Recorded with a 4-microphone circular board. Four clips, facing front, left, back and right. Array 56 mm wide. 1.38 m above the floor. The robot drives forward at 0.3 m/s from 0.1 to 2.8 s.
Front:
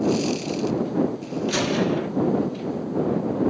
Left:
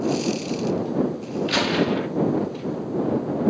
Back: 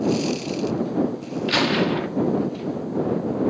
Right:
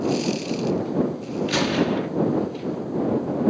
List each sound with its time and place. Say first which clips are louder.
1.5 s a gunshot: even, back 2 dB; 165° left, 1.0 m; by 2.1 s 170° left, 1.1 m